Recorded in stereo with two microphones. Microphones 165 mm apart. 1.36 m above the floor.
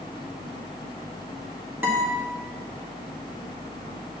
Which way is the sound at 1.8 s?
10° right (ahead or behind).